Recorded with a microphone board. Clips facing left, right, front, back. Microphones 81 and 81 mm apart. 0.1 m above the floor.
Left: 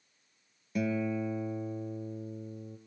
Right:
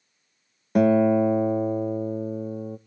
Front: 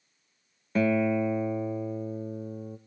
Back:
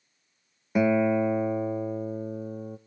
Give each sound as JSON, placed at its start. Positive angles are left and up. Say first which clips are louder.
{"t": 0.8, "sound": "a guitar", "louder": "right 14 dB, back 2 dB", "azimuth_deg": -105, "distance_m": 0.6}